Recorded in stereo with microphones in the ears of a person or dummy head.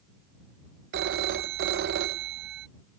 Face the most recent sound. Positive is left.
turn(degrees=-55)  # may be behind; listen again after turning